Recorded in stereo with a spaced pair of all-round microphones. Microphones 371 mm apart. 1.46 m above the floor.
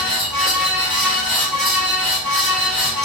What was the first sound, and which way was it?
A fan, 70° left (ahead or behind).